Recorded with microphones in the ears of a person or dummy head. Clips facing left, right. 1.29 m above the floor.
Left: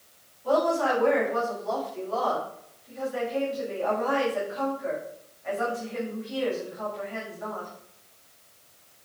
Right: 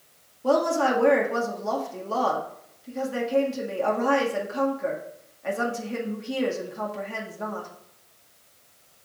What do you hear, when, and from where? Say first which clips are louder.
0.4 s a woman speaking: right 2 dB; 70° right (ahead or behind), 1.9 m